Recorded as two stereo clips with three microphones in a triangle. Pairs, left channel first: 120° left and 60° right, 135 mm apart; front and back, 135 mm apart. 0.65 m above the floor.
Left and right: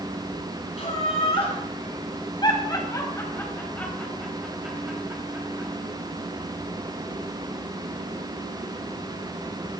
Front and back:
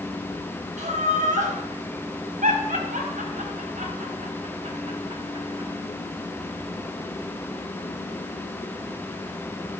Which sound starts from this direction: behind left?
Laughter, at 0.8 s.